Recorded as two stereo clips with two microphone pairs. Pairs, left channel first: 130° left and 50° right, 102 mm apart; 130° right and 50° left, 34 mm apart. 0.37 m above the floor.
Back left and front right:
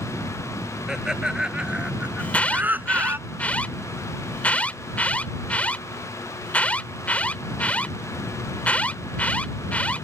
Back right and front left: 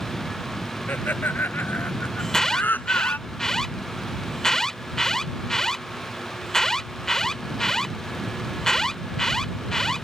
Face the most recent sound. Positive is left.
turn(degrees=180)